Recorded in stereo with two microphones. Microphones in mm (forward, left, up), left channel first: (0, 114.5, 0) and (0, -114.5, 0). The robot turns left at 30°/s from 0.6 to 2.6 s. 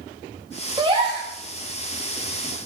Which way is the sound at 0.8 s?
20° right (ahead or behind).